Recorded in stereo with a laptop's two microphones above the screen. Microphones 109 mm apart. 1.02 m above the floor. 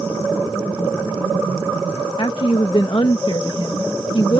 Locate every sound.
2.2 s a woman speaking: 50° left (ahead or behind)